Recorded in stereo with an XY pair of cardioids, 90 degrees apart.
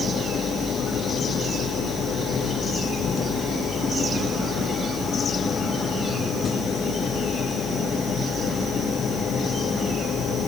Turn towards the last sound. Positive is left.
turn(degrees=60)